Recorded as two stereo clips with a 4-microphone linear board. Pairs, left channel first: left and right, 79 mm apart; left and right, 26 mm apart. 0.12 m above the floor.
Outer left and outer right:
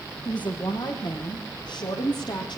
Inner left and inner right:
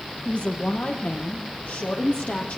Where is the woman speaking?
70° left (ahead or behind), 6 m.